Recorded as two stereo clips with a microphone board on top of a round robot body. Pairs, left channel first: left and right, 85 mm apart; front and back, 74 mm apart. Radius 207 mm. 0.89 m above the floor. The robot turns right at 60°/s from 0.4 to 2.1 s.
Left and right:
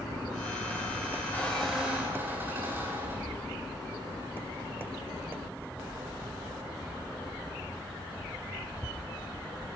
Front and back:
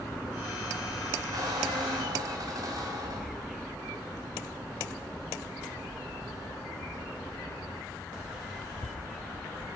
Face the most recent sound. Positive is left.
turn(degrees=-155)